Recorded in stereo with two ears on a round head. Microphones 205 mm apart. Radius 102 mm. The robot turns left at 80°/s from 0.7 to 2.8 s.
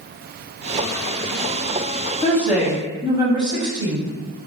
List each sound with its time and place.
2.2 s a woman speaking: 20° left, 0.6 m; by 4.1 s 25° right, 0.6 m